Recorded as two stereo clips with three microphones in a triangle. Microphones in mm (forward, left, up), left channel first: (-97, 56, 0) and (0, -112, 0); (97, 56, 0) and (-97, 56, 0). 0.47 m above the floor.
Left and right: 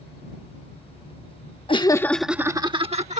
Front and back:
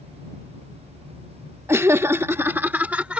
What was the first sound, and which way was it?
Laughter, 115° left.